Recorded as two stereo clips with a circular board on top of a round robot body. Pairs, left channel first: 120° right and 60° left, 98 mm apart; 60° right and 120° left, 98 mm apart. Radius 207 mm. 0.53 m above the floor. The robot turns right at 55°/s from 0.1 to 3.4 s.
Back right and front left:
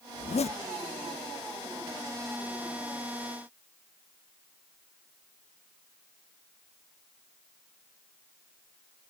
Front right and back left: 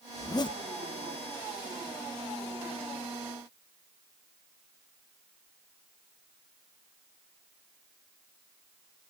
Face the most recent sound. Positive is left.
turn(degrees=55)